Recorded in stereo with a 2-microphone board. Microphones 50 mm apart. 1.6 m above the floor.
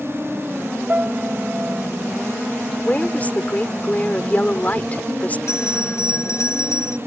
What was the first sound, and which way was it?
A piano, 35° right (ahead or behind).